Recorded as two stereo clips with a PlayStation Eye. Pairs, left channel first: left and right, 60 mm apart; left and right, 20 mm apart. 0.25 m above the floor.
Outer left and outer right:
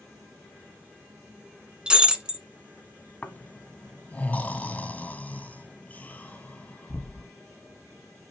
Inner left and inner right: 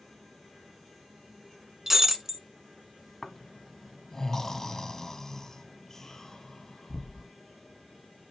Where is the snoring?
25° left (ahead or behind), 1.3 m.